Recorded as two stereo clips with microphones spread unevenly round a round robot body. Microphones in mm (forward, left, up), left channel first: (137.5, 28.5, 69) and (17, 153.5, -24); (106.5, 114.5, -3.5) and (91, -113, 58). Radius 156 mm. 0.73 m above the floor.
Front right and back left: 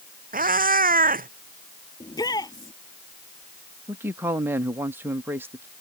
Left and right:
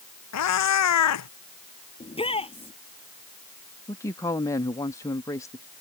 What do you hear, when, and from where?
0.3 s a cat meowing: 90° left
2.0 s a shout: 20° left
3.9 s a man speaking: 135° left